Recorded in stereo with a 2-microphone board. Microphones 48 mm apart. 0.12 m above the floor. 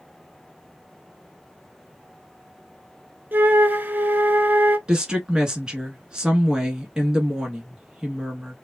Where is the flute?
40° right (ahead or behind), 0.6 m.